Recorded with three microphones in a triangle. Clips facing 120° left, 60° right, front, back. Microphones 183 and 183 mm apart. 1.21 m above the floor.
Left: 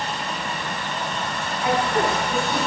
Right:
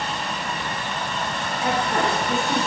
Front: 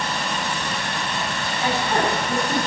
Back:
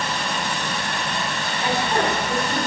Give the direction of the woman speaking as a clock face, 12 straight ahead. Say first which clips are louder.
Left 2 dB, even; 2 o'clock.